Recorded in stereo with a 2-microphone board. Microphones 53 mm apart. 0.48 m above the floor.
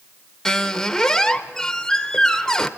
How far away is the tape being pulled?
No tape being pulled in this recording.